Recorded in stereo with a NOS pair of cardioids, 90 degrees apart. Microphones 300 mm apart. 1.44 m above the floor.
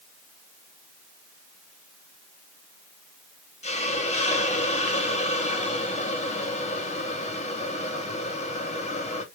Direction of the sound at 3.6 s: 20° left.